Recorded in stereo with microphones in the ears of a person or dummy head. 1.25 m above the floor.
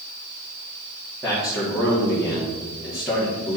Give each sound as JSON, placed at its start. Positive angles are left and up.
{"t": 1.2, "sound": "a man speaking", "side_deg": 0, "distance_m": 3.0}